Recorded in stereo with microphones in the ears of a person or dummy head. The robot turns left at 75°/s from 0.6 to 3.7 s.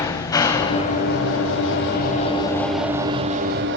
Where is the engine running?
160° left, 4 m; by 3.8 s 70° right, 4 m.